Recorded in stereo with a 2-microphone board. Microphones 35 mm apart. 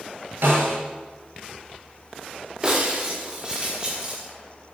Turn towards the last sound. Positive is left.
turn(degrees=-25)  # may be behind; listen again after turning